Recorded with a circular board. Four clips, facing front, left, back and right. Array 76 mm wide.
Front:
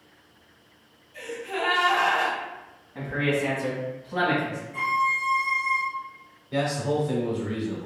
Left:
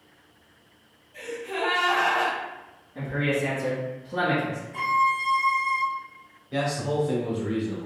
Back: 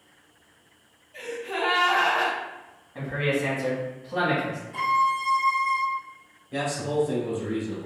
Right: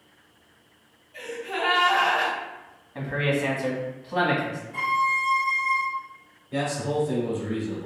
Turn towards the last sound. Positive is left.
turn(degrees=40)